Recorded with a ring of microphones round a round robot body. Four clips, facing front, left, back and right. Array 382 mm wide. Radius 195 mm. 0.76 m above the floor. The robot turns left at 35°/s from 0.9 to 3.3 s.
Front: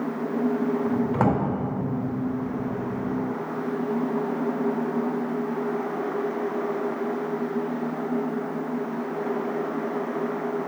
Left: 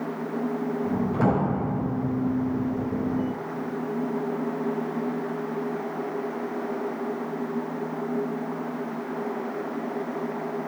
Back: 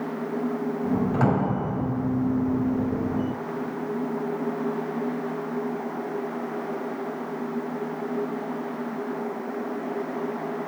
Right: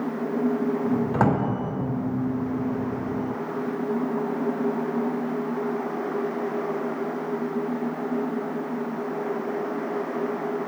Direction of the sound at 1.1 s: 55° right.